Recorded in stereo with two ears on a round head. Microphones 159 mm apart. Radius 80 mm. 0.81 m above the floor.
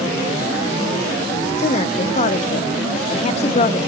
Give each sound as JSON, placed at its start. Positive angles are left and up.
{"t": 1.6, "sound": "a woman speaking", "side_deg": 40, "distance_m": 0.6}